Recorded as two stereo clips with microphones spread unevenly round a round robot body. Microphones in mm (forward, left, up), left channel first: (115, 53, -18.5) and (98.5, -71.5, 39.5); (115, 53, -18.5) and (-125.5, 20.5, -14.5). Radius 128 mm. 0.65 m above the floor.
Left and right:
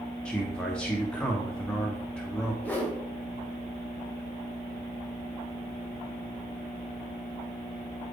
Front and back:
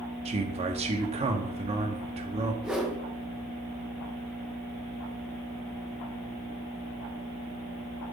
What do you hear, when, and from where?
0.2 s a man speaking: 130° left, 0.8 m
2.6 s a whoosh: 100° left, 1.1 m